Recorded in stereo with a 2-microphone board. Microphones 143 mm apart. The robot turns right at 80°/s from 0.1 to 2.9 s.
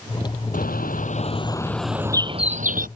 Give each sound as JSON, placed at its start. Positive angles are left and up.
{"t": 0.5, "sound": "a bird", "azimuth_deg": 75}